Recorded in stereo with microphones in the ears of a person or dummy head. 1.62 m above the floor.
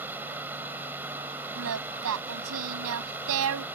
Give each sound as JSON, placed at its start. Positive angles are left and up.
{"t": 0.0, "sound": "running water", "side_deg": -10}
{"t": 1.6, "sound": "singing", "side_deg": -70}